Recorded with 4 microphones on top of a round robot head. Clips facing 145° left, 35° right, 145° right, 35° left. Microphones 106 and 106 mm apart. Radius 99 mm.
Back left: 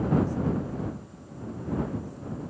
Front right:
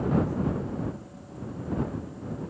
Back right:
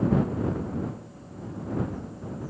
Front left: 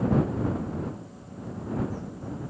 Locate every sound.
Only background noise.